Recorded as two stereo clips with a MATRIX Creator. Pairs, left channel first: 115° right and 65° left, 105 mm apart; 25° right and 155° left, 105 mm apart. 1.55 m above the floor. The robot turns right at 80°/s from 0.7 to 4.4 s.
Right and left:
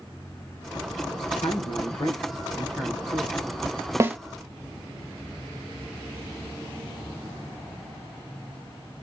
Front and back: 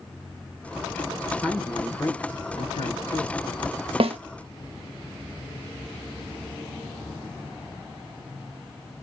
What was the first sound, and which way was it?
A man speaking, 145° right.